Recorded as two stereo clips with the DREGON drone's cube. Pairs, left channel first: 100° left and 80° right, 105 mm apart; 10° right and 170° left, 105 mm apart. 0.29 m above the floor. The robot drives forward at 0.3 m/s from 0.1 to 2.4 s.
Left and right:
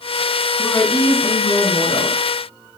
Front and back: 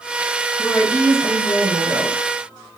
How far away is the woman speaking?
About 2.5 m.